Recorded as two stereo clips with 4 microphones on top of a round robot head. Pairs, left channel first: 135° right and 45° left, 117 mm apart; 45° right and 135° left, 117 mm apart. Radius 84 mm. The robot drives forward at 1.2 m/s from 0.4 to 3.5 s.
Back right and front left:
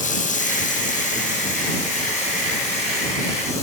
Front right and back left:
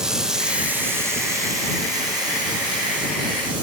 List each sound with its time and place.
0.0 s running water: 140° right, 1.5 m; by 3.6 s 170° right, 5 m